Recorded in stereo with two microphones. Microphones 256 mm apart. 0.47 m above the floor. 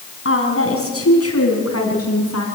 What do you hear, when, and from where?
0.2 s a woman speaking: 55° left (ahead or behind), 4.5 m; by 2.5 s 75° left (ahead or behind), 6 m